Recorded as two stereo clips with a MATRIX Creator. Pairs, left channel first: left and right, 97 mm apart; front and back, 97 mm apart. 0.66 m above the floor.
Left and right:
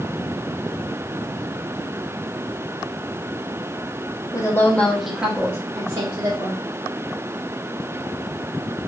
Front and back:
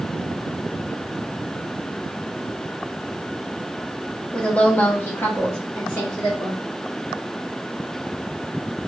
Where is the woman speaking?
75° left, 1.0 m; by 6.6 s 60° right, 1.6 m.